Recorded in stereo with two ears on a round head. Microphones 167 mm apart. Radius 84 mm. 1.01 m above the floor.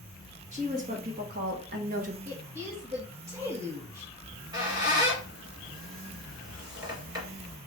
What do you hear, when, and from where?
0.5 s a woman speaking: 40° right (ahead or behind), 1.5 m
2.2 s a woman speaking: 35° right (ahead or behind), 1.4 m
4.2 s a squeak: 20° right (ahead or behind), 1.6 m